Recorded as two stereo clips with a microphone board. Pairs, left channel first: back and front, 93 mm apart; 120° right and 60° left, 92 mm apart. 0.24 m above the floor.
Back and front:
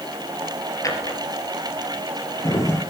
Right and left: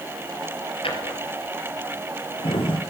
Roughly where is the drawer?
Behind right.